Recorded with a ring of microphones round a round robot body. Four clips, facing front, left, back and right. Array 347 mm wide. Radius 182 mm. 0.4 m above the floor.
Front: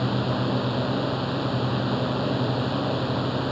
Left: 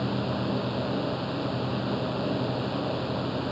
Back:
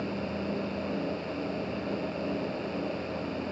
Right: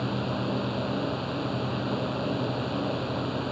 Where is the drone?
Straight ahead.